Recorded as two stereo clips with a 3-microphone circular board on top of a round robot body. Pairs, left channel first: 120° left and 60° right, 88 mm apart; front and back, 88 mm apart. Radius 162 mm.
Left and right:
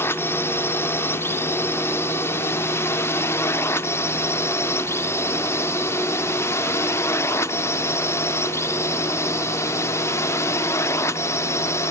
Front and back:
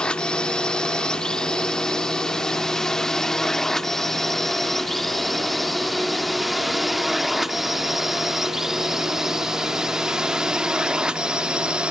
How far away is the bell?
I don't hear a bell.